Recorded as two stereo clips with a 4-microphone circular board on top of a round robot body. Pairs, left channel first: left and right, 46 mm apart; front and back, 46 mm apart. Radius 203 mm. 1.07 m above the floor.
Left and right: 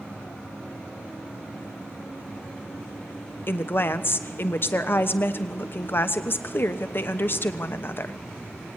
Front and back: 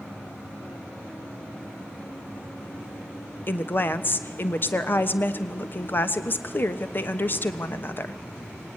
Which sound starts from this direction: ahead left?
A woman speaking, at 3.5 s.